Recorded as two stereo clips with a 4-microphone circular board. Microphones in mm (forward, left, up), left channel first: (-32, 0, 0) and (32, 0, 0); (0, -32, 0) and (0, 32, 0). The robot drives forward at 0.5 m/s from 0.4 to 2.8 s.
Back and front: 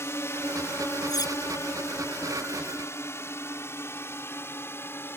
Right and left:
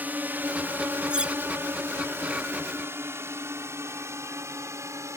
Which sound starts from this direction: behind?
Cutlery clinking, at 1.1 s.